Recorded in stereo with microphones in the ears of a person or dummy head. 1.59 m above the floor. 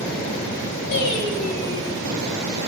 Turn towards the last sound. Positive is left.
turn(degrees=55)  # may be behind; listen again after turning